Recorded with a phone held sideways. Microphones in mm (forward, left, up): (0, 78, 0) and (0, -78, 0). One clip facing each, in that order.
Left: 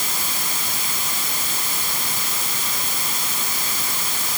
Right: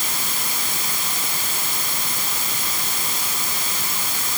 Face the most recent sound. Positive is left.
No sound to turn to.